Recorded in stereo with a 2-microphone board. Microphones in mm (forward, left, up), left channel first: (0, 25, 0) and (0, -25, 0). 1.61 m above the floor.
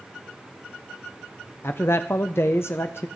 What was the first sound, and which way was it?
A man speaking, 55° left (ahead or behind).